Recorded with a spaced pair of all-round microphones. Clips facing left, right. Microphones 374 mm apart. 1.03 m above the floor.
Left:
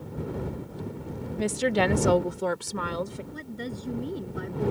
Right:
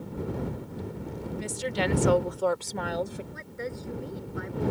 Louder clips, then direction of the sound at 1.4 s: Left 7 dB; 75° left (ahead or behind).